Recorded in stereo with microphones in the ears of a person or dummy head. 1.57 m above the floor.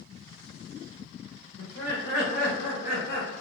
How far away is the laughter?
About 0.6 m.